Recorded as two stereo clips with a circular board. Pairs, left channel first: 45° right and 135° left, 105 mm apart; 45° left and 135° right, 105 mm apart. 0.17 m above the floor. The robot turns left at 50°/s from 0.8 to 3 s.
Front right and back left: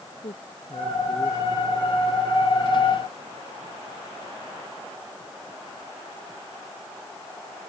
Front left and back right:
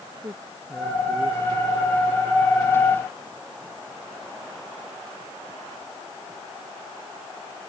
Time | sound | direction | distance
0.2 | a man speaking | 75° right | ?